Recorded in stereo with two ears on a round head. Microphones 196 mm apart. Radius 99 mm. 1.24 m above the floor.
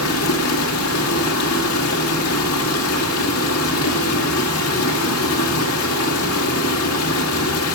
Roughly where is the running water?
Left.